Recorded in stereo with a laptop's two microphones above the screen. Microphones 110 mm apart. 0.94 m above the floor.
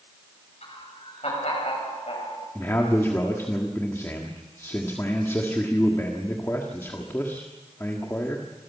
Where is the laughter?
75° left (ahead or behind), 7 m; by 2.5 s 55° left (ahead or behind), 6 m.